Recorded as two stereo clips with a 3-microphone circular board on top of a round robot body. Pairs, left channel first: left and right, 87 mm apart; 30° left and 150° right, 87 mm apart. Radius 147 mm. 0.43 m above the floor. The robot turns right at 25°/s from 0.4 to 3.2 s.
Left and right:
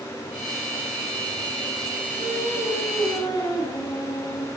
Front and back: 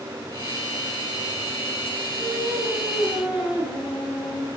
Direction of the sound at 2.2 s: 105° left.